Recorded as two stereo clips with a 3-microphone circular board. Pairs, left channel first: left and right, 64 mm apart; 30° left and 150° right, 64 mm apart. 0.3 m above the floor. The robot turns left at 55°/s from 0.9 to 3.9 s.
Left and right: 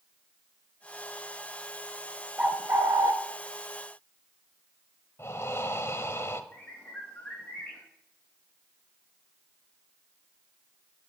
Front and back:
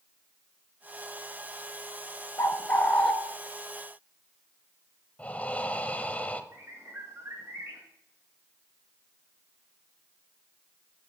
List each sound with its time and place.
2.4 s a bird: 15° right, 0.6 m; by 3.1 s 55° right, 0.6 m
5.2 s breathing: 85° left, 0.8 m
6.5 s a bird: 160° left, 6.5 m